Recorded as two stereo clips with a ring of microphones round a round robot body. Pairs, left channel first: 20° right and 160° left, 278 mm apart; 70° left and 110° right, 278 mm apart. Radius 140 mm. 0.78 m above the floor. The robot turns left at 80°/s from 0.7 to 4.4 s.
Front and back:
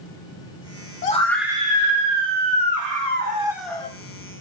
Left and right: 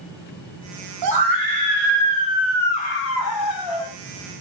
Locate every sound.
1.0 s a scream: 85° right, 1.7 m; by 3.9 s 45° left, 1.7 m